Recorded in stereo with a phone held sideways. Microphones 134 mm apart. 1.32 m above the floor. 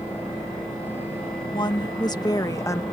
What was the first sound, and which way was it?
A woman speaking, 35° left (ahead or behind).